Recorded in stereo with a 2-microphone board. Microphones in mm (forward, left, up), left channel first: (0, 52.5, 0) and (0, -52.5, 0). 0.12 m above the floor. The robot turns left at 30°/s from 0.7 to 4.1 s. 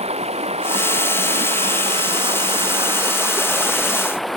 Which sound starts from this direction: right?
Running water, at 0.0 s.